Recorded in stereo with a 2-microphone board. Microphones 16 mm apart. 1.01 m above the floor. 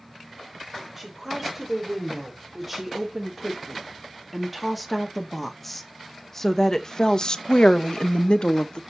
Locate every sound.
1.0 s a woman speaking: 10° right (ahead or behind), 4 m; by 8.8 s 55° left (ahead or behind), 1.1 m